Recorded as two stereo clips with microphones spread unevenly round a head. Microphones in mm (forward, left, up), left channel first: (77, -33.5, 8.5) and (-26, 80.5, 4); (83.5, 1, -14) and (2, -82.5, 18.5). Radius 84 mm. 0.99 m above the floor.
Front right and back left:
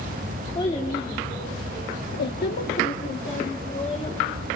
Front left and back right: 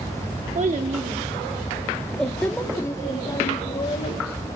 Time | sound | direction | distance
0.6 | a child speaking | 115° right | 2 m